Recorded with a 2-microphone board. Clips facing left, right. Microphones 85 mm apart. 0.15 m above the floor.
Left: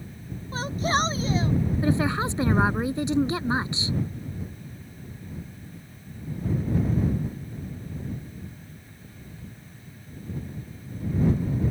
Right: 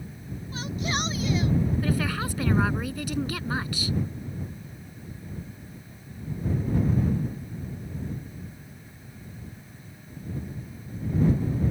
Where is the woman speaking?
25° left (ahead or behind).